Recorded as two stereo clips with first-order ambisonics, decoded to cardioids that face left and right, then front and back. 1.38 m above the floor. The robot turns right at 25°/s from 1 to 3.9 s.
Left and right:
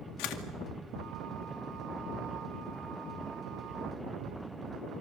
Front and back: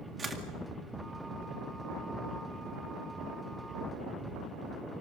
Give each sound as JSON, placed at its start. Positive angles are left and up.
{"t": 0.2, "sound": "a camera shutter", "azimuth_deg": 105, "distance_m": 2.0}